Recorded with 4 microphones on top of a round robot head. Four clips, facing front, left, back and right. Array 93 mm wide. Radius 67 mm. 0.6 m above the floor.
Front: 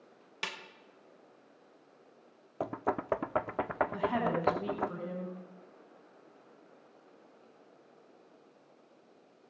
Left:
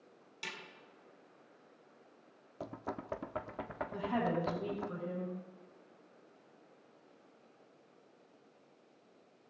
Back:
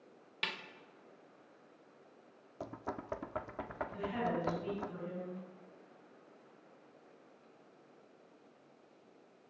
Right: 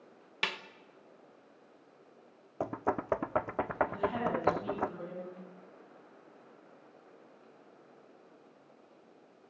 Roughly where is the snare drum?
Right.